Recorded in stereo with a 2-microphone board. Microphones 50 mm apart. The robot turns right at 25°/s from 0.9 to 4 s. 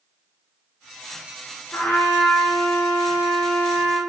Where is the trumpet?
125° left, 1.1 m; by 4.0 s 175° right, 1.1 m.